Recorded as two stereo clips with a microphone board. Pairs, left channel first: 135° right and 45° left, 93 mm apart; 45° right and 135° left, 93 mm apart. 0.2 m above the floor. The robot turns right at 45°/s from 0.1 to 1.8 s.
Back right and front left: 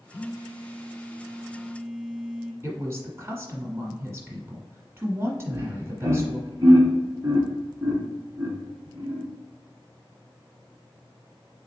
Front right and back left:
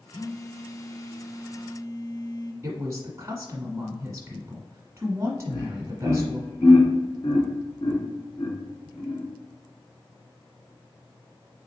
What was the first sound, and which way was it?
A phone buzzing, 120° right.